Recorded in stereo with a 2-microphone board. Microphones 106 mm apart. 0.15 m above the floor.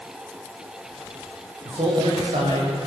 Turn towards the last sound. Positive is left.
turn(degrees=-65)  # may be behind; listen again after turning